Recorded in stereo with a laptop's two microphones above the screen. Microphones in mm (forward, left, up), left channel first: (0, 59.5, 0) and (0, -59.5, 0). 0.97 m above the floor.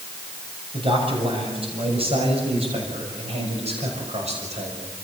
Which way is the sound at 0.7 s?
50° right (ahead or behind).